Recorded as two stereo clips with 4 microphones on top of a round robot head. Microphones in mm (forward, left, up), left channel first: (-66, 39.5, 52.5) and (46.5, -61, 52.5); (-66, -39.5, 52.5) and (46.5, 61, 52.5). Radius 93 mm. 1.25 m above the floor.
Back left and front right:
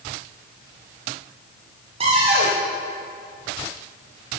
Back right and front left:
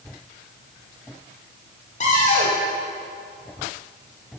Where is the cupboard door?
90° right, 1.4 m.